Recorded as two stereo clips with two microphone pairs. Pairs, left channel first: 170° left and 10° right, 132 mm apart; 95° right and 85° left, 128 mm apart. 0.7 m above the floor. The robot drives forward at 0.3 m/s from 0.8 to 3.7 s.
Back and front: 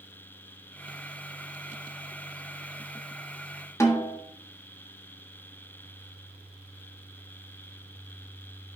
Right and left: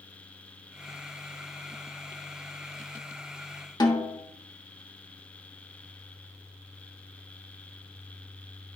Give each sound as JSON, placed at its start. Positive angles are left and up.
{"t": 3.8, "sound": "a snare drum", "azimuth_deg": -135, "distance_m": 1.2}